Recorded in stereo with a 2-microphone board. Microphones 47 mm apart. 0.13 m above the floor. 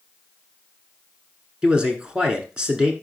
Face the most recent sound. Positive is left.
turn(degrees=-20)  # may be behind; listen again after turning